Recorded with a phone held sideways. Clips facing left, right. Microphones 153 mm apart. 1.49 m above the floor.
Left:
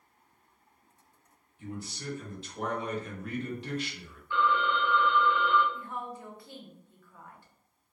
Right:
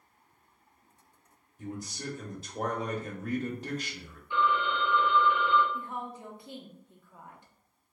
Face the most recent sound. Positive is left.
turn(degrees=-20)  # may be behind; listen again after turning